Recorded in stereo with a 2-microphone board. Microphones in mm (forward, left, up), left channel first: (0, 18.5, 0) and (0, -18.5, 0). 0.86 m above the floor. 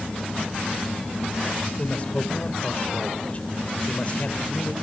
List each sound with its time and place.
1.8 s a man speaking: 35° left (ahead or behind), 2.5 m